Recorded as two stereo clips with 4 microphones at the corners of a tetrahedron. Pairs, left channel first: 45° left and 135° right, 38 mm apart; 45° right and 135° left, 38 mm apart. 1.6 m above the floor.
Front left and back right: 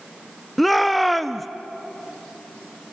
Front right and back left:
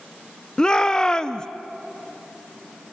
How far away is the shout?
About 0.5 m.